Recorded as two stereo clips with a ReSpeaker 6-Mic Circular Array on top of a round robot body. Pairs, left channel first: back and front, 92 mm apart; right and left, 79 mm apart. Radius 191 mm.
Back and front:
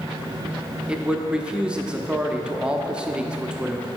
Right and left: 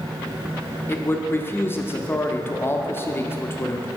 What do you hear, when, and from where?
0.9 s a man speaking: 70° right, 1.0 m